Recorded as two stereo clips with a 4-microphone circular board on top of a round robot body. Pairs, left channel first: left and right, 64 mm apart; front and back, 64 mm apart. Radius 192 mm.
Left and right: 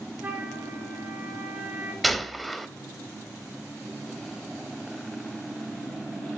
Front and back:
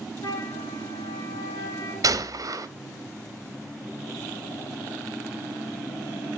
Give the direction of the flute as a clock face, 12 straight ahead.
1 o'clock.